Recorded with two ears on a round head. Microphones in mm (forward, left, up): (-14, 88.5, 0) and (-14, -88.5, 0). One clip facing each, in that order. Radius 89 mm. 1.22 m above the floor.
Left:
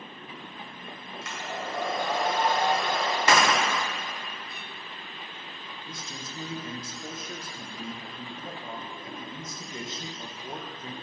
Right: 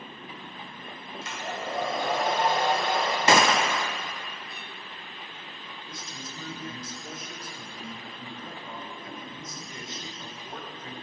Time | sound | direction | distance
1.2 | a hair dryer | 25° right (ahead or behind) | 2.5 m
3.3 | a gunshot | 25° right (ahead or behind) | 0.8 m
5.9 | a man speaking | 25° left (ahead or behind) | 1.2 m